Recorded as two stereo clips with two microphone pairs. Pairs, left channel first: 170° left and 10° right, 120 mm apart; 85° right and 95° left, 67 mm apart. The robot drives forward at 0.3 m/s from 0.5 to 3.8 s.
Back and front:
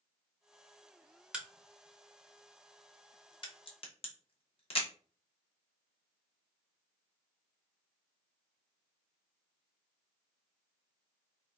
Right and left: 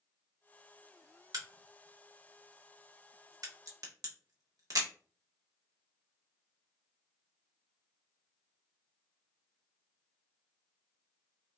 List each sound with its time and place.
1.3 s a crack: 70° left, 0.7 m; by 4.8 s 130° left, 0.8 m